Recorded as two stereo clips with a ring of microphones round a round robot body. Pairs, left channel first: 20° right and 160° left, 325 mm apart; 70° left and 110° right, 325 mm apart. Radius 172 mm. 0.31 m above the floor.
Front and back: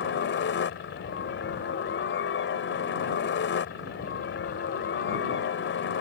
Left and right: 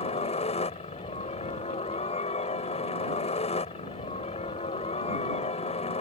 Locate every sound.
0.0 s a helicopter: 5° left